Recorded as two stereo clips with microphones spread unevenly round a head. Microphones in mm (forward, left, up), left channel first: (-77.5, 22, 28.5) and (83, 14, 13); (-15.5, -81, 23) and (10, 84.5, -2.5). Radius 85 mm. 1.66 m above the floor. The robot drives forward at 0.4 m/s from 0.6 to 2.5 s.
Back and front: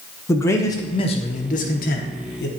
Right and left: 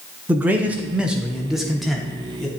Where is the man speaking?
170° left, 0.6 m; by 2.5 s straight behind, 1.1 m.